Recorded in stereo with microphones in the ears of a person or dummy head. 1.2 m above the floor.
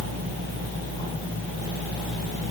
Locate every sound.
Only background noise.